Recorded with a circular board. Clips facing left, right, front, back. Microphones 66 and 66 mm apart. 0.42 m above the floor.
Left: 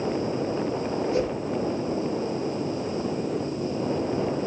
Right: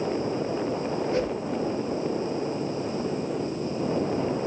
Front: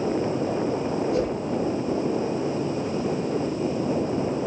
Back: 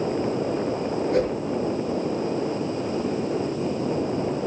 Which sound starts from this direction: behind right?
A whoosh, at 1.1 s.